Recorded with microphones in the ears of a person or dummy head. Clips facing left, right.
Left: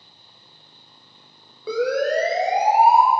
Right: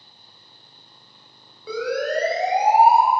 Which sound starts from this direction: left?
A siren, at 1.7 s.